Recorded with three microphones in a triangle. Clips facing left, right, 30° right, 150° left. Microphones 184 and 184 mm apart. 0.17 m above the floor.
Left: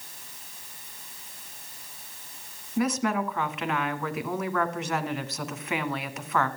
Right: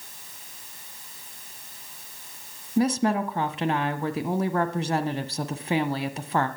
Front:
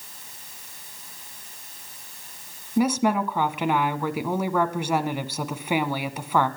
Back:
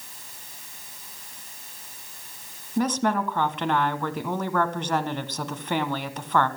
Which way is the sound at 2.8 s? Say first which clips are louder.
Right 3 dB, front 2 dB; 105° right.